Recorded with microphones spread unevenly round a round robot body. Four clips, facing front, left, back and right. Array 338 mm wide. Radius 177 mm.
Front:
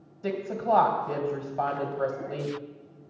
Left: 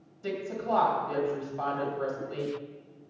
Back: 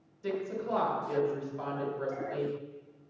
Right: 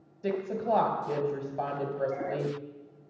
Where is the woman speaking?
40° right, 2 m.